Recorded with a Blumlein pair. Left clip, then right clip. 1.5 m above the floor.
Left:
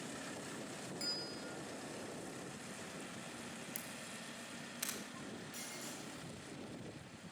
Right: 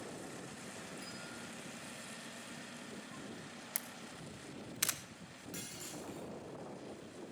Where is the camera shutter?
65° right, 1.2 m.